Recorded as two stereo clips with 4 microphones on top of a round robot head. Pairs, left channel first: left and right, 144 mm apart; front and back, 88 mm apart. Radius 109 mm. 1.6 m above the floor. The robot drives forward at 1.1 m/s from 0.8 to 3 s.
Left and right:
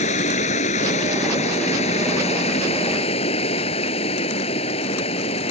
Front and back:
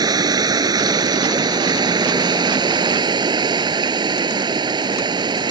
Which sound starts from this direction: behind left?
Running water, at 0.0 s.